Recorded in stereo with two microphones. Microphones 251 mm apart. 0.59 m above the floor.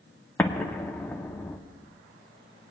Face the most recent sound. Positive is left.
turn(degrees=5)  # may be behind; listen again after turning